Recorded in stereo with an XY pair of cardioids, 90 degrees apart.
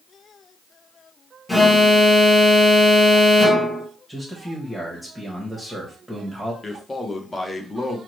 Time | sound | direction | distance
1.5 | an alarm | 10° left | 0.9 m
4.1 | a man speaking | 5° right | 1.0 m
6.6 | a man speaking | 20° left | 0.8 m